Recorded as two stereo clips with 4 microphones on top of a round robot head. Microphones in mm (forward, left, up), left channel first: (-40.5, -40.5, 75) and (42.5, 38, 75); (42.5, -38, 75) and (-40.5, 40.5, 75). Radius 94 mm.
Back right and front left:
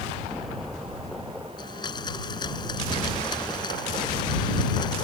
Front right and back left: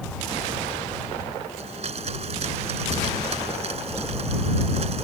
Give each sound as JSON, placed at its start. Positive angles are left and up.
{"t": 1.6, "sound": "a blender", "azimuth_deg": 170}